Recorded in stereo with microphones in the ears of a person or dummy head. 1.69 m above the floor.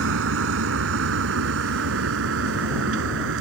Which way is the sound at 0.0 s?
80° right.